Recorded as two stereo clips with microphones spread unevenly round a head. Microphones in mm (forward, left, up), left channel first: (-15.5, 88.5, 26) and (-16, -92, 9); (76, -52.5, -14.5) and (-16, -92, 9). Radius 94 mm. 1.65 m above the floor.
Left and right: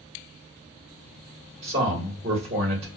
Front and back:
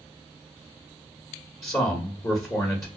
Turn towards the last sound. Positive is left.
turn(degrees=-40)